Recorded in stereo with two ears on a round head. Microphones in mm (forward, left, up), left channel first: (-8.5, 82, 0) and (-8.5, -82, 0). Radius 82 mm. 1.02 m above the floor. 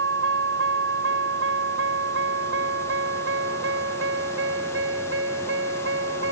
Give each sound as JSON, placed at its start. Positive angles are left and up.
{"t": 0.0, "sound": "a vehicle", "side_deg": -75}